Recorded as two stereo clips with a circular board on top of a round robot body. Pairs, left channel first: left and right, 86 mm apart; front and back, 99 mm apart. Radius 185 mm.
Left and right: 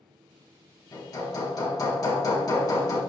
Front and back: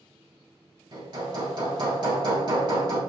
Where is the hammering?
135° left, 3 m.